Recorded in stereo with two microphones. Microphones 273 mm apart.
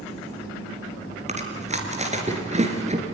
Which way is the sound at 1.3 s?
25° right (ahead or behind).